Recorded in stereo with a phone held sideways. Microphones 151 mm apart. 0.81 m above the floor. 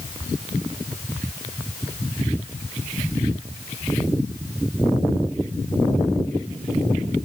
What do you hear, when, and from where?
Only background noise.